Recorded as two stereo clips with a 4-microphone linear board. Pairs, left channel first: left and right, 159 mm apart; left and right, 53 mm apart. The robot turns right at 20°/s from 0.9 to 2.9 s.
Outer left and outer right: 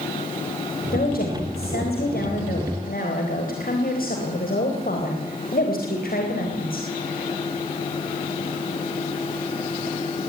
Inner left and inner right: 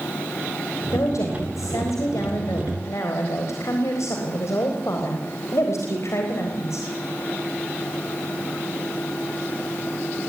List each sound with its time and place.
0.9 s a woman speaking: 70° left, 4 m; by 6.9 s 110° left, 4 m